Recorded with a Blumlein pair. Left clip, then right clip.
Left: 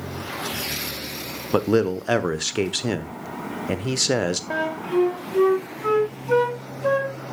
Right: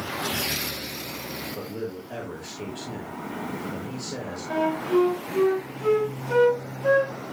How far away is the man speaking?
About 1.2 m.